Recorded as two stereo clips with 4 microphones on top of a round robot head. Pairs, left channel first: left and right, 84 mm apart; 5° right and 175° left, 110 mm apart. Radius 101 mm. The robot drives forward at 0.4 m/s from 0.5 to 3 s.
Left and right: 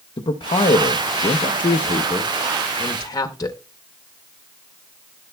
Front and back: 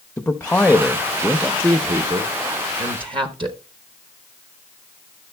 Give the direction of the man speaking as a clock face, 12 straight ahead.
10 o'clock.